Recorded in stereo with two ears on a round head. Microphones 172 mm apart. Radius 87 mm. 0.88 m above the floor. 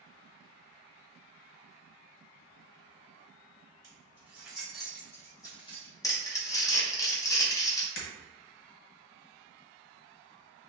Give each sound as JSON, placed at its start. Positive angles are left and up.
{"t": 3.8, "sound": "keys jangling", "side_deg": -20, "distance_m": 1.6}
{"t": 6.0, "sound": "crumpling", "side_deg": 20, "distance_m": 0.7}
{"t": 8.0, "sound": "breaking glass", "side_deg": 55, "distance_m": 1.1}